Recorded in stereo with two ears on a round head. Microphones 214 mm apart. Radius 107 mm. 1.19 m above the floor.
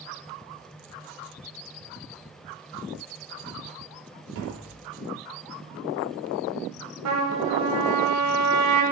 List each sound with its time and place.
4.3 s tapping: 65° right (ahead or behind), 3.5 m
7.0 s a trumpet: 80° right, 3 m